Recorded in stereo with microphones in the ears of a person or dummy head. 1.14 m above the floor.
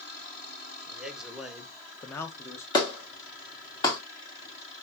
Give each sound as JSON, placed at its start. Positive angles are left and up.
{"t": 0.9, "sound": "a man speaking", "side_deg": -5, "distance_m": 1.6}
{"t": 2.7, "sound": "a clap", "side_deg": 25, "distance_m": 1.6}